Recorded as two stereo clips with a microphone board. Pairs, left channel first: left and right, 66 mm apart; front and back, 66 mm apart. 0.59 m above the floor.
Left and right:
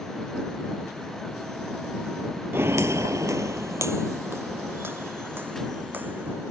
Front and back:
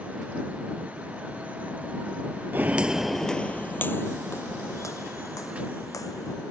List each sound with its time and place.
2.5 s footsteps: 130° right; by 6.3 s 30° right